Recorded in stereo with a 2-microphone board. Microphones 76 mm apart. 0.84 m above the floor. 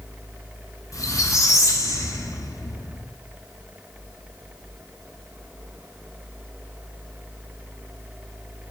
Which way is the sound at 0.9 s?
45° left (ahead or behind).